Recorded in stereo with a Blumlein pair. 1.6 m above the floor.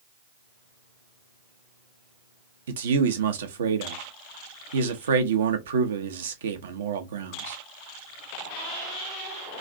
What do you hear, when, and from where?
2.7 s a man speaking: 60° right, 0.7 m